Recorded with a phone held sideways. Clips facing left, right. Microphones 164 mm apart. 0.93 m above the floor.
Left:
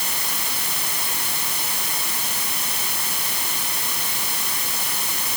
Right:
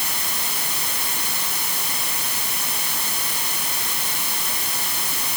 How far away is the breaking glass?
I don't hear breaking glass.